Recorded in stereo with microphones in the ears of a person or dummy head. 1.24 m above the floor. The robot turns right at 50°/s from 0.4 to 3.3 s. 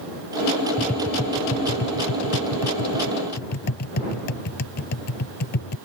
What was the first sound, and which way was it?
Tapping, centre (ahead or behind).